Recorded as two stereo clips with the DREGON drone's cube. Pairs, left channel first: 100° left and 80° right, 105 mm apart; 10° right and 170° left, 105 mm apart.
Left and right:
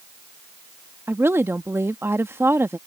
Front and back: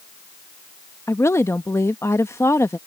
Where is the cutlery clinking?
No cutlery clinking in this recording.